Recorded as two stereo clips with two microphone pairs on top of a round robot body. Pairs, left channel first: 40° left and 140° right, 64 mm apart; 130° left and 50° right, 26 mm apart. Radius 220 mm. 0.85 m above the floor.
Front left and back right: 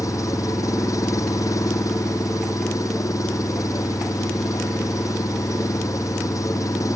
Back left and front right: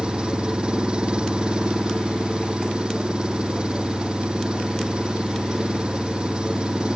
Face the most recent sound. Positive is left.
turn(degrees=5)